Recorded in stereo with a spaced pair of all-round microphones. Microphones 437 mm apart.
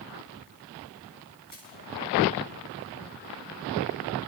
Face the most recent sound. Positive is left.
turn(degrees=50)  # may be behind; listen again after turning